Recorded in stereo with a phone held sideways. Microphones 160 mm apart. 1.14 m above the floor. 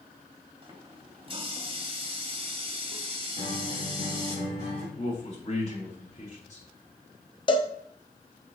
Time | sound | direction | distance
0.6 | a running tap | 30° right (ahead or behind) | 1.8 m
3.4 | a guitar | 50° right (ahead or behind) | 2.5 m
5.0 | a man speaking | 45° left (ahead or behind) | 4 m
7.5 | a cowbell | 30° left (ahead or behind) | 0.8 m